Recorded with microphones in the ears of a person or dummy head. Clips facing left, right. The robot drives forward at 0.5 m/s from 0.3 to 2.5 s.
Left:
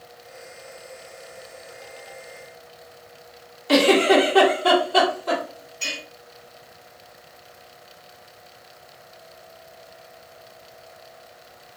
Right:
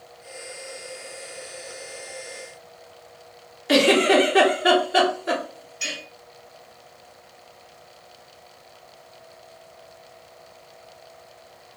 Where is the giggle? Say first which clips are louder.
Left 1 dB; 20° right (ahead or behind), 1.0 m.